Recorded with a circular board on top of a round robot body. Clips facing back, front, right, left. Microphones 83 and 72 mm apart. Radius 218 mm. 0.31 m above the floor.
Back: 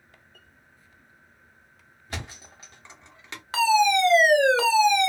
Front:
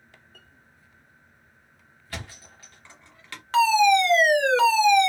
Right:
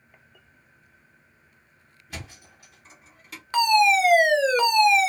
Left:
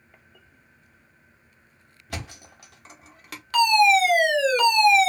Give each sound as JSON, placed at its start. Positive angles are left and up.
{"t": 2.1, "sound": "a thud", "azimuth_deg": 110, "distance_m": 1.0}
{"t": 3.5, "sound": "a fire alarm", "azimuth_deg": -105, "distance_m": 2.0}